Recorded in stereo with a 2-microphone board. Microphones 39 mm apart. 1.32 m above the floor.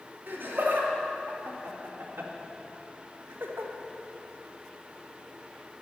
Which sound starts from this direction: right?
Laughter, at 0.3 s.